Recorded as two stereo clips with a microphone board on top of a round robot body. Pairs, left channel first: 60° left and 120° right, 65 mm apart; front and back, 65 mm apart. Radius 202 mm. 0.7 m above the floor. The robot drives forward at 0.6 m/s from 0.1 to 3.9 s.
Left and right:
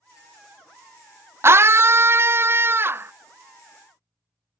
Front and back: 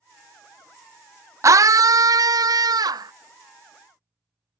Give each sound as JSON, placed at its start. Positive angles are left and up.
{"t": 1.4, "sound": "a scream", "azimuth_deg": -160}